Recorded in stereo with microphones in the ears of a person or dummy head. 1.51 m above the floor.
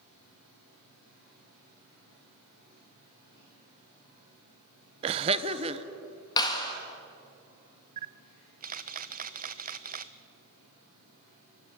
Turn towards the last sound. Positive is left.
turn(degrees=-50)  # may be behind; listen again after turning